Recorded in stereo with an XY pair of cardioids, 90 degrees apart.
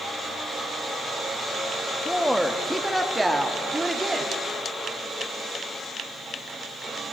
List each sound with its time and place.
2.0 s a woman speaking: straight ahead, 2.0 m; by 4.3 s 20° right, 3.5 m